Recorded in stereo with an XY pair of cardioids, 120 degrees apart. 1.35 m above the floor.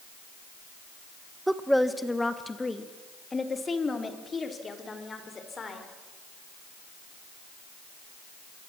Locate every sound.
1.5 s a woman speaking: 10° right, 1.0 m; by 5.8 s 30° left, 4.5 m